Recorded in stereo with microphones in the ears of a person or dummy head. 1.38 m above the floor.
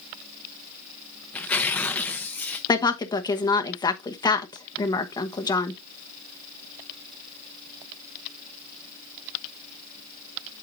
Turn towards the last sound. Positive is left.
turn(degrees=20)  # may be behind; listen again after turning